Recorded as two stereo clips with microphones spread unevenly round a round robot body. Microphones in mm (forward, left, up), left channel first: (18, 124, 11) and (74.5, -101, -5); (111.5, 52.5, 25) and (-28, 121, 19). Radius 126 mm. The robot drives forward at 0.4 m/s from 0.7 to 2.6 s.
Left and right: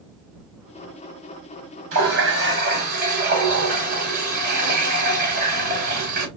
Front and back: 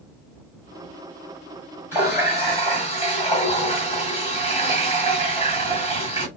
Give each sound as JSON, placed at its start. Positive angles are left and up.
{"t": 1.9, "sound": "a running tap", "azimuth_deg": -125, "distance_m": 1.3}